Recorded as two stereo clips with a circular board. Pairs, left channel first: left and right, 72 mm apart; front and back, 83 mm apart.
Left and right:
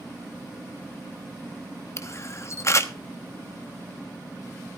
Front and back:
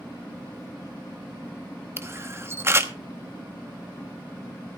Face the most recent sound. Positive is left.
turn(degrees=125)